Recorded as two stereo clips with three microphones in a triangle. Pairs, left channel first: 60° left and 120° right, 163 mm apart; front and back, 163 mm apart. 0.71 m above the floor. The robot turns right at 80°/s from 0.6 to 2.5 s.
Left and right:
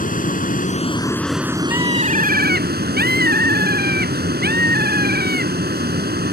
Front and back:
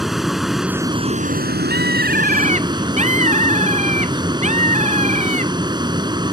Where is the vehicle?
90° left; by 6.3 s 115° right.